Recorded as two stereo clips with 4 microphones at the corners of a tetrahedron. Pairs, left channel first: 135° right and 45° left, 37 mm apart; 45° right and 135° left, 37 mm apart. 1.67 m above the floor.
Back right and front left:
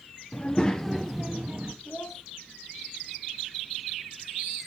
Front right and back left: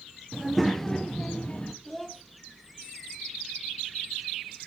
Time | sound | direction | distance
0.3 | a child speaking | 135° right | 0.6 m
1.9 | a child speaking | 120° right | 1.8 m